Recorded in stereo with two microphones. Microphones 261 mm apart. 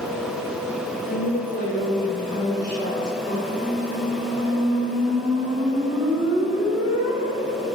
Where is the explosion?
I don't hear an explosion.